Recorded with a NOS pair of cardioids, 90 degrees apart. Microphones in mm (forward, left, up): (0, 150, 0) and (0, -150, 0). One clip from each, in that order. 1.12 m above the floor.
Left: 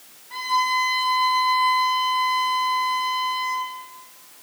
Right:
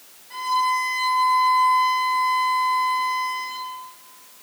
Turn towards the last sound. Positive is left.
turn(degrees=-30)